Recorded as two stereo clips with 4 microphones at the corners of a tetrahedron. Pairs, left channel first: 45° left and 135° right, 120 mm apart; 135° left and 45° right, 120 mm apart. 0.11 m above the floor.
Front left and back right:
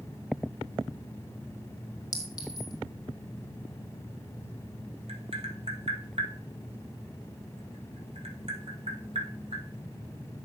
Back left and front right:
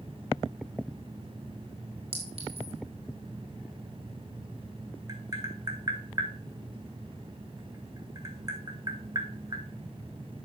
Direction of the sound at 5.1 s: 100° right.